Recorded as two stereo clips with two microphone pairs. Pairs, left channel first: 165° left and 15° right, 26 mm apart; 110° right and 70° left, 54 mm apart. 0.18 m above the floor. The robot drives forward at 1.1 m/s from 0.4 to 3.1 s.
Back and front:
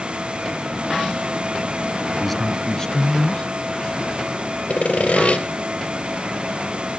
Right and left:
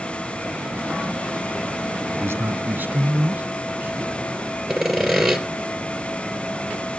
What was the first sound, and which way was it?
A man speaking, 75° left.